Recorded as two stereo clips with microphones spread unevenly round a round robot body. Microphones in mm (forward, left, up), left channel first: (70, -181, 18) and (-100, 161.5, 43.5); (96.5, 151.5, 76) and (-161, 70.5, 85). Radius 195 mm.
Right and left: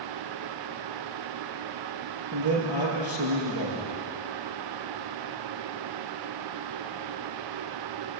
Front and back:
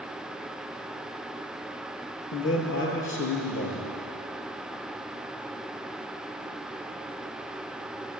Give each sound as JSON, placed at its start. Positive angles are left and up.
{"t": 2.3, "sound": "a man speaking", "azimuth_deg": 60, "distance_m": 7.0}